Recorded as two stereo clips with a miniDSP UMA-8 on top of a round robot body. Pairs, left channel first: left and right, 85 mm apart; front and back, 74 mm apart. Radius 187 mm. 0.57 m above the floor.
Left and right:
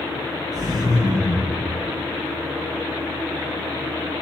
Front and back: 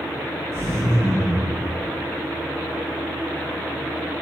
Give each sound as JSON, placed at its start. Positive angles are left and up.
{"t": 0.5, "sound": "laughter", "azimuth_deg": -130, "distance_m": 1.6}